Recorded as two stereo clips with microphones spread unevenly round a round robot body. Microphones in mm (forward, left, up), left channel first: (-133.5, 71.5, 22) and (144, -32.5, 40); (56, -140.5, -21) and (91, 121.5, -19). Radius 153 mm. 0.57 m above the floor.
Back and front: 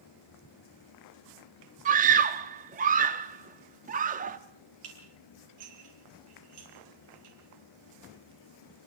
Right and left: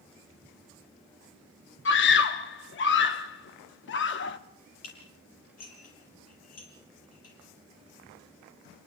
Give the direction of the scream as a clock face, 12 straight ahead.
3 o'clock.